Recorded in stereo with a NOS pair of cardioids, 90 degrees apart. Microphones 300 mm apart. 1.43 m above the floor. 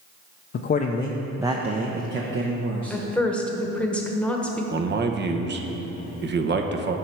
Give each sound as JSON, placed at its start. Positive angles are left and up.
{"t": 0.5, "sound": "a man speaking", "azimuth_deg": 40, "distance_m": 0.6}
{"t": 2.9, "sound": "a woman speaking", "azimuth_deg": 5, "distance_m": 1.2}
{"t": 4.7, "sound": "a man speaking", "azimuth_deg": -35, "distance_m": 0.8}